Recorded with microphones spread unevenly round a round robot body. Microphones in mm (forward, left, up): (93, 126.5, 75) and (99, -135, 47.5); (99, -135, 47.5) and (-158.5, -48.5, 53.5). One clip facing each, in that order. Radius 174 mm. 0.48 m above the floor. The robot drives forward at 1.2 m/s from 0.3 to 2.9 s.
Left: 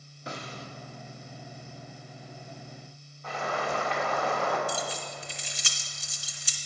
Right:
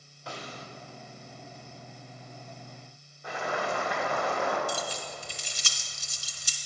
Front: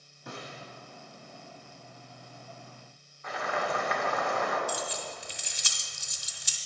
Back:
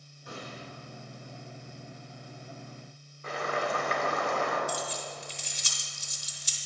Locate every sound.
0.3 s a snare drum: 20° left, 1.4 m; by 0.7 s 30° left, 1.0 m
3.2 s boiling: 155° right, 1.9 m
4.7 s keys jangling: 45° right, 1.2 m